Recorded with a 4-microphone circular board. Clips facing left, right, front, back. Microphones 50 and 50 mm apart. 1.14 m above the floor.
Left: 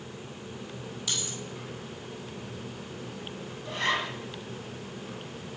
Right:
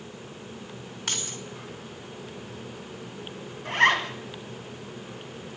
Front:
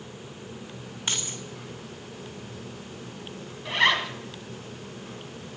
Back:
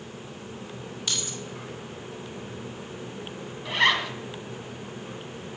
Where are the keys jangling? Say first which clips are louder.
Right 3 dB, front 1 dB; 50° right, 1.6 m.